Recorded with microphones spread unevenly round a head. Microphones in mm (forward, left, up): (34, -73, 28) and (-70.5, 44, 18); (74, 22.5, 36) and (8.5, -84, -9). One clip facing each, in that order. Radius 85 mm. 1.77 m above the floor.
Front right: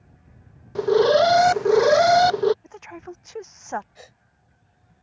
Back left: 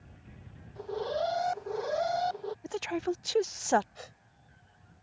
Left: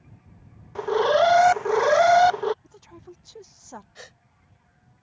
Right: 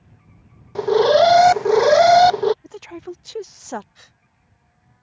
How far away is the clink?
No clink in this recording.